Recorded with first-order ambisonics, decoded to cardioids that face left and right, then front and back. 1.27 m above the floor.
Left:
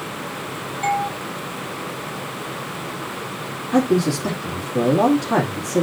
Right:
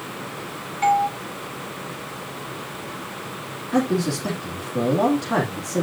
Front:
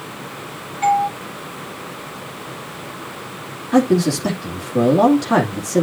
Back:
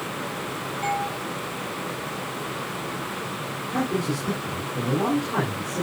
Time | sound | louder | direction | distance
0.8 | a doorbell | right 3 dB, front 11 dB | 60° right | 5 m
3.7 | a man speaking | left 4 dB, front 11 dB | 5° left | 2.5 m